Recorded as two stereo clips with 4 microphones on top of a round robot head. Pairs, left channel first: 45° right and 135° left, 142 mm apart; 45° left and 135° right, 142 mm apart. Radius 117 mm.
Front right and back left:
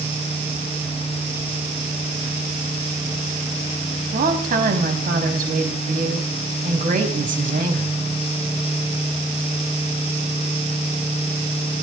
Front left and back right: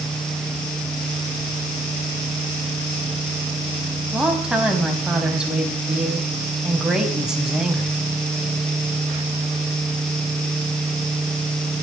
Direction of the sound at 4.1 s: 140° left.